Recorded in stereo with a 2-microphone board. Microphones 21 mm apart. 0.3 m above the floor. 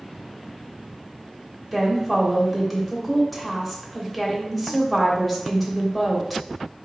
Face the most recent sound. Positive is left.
turn(degrees=5)  # may be behind; listen again after turning